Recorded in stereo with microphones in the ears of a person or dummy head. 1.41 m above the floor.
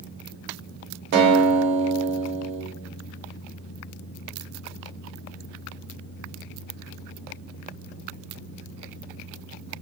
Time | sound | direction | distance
1.1 | a guitar | 60° right (ahead or behind) | 0.6 m